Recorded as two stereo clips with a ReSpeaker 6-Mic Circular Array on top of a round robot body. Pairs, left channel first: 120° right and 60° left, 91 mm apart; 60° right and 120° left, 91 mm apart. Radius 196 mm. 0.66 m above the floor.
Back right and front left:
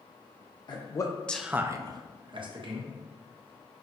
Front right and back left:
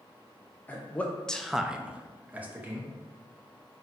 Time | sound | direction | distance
0.7 | a man speaking | 125° right | 0.8 m